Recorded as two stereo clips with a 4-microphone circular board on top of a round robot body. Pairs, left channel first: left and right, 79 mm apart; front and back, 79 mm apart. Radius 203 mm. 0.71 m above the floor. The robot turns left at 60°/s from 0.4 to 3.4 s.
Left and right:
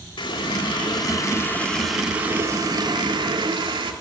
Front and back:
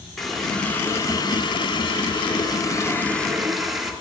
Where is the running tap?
90° left, 1.6 m; by 3.9 s 90° right, 1.6 m.